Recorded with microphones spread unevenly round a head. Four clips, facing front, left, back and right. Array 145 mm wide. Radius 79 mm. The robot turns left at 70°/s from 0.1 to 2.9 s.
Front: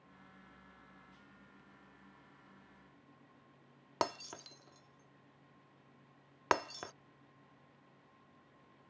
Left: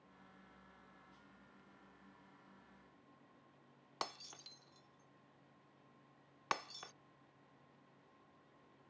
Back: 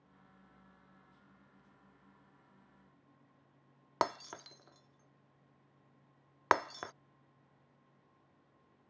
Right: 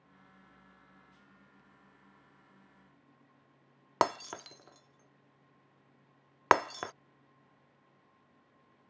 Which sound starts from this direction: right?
Breaking glass, at 4.0 s.